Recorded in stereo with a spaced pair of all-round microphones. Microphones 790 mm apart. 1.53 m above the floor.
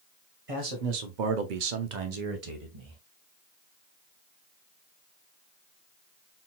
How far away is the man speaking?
About 1.2 m.